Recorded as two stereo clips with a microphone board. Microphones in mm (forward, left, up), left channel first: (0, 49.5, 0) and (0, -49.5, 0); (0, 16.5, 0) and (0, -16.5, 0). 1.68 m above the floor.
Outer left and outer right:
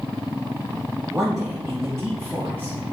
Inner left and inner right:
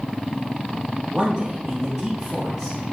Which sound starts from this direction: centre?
A man speaking, at 1.1 s.